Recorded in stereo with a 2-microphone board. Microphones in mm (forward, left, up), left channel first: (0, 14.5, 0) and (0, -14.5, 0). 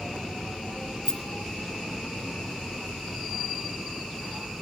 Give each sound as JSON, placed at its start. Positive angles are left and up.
{"t": 1.1, "sound": "a rattle", "side_deg": 30, "distance_m": 1.3}